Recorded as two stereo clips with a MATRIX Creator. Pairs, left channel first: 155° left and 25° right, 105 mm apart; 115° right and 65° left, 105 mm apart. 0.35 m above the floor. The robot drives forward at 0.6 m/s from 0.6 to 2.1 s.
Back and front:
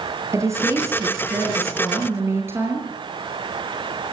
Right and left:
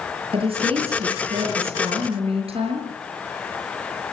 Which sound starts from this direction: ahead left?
A woman speaking, at 0.3 s.